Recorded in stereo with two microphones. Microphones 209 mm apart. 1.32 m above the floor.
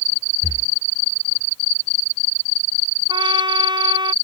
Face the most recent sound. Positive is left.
turn(degrees=-20)  # may be behind; listen again after turning